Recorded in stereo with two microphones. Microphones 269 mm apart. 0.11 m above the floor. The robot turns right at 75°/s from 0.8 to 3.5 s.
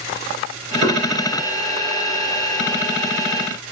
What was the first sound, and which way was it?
Knocking, 40° right (ahead or behind).